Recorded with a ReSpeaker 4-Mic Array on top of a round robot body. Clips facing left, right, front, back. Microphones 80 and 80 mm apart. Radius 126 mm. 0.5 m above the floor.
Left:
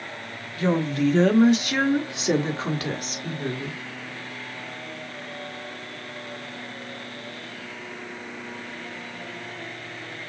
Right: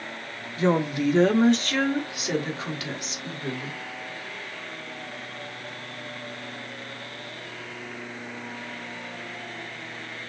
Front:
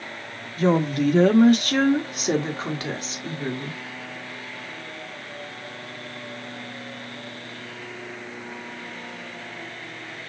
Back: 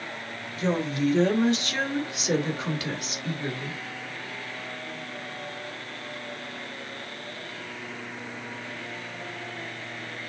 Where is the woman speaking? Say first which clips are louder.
Even, front 6 dB; 25° right, 1.8 m; by 3.8 s 65° left, 2.5 m.